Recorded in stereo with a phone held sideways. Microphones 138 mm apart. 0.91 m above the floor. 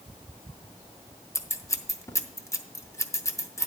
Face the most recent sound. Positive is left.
turn(degrees=20)  # may be behind; listen again after turning